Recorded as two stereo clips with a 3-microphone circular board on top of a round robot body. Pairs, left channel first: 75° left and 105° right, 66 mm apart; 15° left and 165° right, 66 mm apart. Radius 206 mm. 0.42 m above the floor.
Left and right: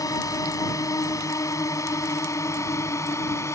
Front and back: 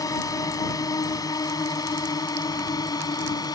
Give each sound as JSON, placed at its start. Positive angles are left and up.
{"t": 0.0, "sound": "a drone", "azimuth_deg": 45}